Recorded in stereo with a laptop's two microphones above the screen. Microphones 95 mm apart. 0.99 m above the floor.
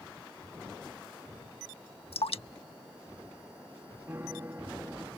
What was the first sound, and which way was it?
Dripping, 90° left.